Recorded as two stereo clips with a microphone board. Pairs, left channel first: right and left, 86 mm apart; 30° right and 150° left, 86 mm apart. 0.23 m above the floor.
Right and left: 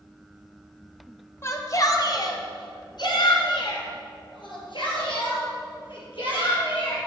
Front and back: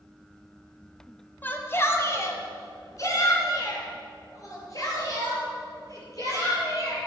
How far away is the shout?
About 1.0 m.